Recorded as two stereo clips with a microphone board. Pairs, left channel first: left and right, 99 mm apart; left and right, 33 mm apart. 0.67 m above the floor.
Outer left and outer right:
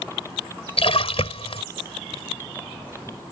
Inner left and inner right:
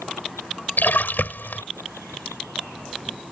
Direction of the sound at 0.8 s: 75° left (ahead or behind).